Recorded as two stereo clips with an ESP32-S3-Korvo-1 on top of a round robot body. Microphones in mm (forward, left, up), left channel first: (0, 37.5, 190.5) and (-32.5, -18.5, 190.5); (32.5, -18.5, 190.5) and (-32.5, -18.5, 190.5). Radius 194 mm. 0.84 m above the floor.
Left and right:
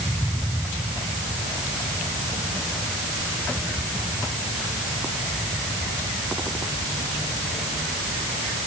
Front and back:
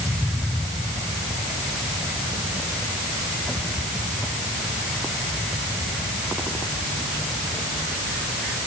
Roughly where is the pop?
I don't hear a pop.